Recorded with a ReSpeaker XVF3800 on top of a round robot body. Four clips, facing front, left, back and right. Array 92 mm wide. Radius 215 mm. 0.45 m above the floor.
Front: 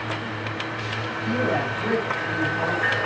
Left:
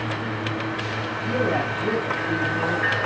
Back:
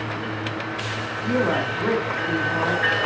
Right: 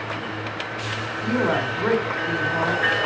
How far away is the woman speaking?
About 8.5 m.